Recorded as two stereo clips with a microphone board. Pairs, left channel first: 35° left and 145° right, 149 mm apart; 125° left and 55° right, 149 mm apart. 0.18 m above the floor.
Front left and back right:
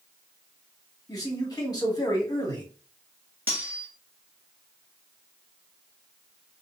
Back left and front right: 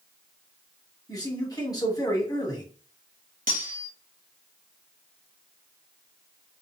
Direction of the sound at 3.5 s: 70° right.